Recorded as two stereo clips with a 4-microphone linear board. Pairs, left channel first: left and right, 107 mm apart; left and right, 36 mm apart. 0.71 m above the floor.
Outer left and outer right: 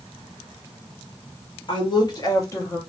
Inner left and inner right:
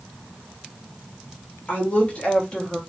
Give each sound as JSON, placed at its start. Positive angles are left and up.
{"t": 1.7, "sound": "a woman speaking", "side_deg": 50, "distance_m": 1.2}